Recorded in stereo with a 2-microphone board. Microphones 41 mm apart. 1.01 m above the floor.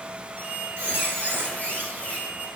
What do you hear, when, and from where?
0.4 s a squeak: 60° right (ahead or behind), 2 m